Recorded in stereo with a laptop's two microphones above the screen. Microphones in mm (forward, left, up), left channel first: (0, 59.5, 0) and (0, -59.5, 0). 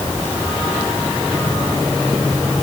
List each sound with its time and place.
Only background noise.